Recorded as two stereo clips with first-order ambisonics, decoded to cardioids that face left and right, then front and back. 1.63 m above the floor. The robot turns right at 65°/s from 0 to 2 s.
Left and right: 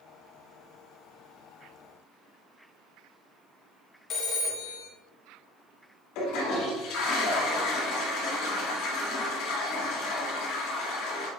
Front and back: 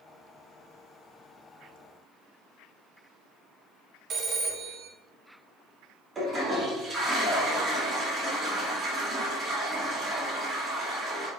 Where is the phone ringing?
130° left, 1.2 m.